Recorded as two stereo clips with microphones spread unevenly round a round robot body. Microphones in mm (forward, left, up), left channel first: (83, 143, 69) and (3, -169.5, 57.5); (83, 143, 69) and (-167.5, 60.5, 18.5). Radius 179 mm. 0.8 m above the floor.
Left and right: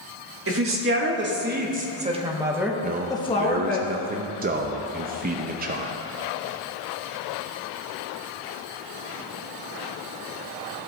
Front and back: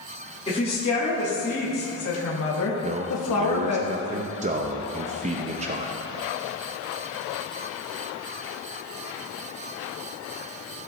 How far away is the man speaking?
About 0.6 m.